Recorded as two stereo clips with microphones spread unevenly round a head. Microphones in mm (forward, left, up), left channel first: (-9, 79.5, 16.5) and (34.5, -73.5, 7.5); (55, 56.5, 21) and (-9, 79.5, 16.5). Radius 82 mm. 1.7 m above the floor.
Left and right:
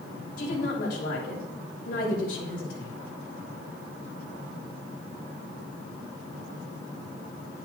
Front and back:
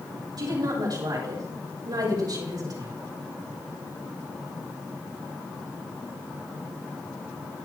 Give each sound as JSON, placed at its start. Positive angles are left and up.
{"t": 0.4, "sound": "a woman speaking", "azimuth_deg": 145, "distance_m": 6.5}